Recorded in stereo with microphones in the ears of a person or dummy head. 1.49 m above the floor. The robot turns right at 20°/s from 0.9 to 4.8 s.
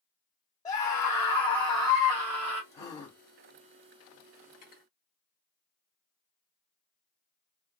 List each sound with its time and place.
0.7 s a scream: 160° left, 1.2 m; by 2.6 s 165° right, 1.2 m
2.7 s a gasp: 20° left (ahead or behind), 1.3 m; by 3.2 s 25° left (ahead or behind), 1.3 m
4.5 s cutlery clinking: 45° left (ahead or behind), 0.9 m; by 4.9 s 40° left (ahead or behind), 0.9 m